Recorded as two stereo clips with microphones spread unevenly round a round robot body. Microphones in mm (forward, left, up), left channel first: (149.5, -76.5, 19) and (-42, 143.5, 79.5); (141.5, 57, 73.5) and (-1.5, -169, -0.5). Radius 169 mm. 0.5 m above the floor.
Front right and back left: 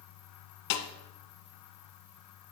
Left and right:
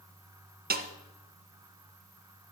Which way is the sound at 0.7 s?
65° right.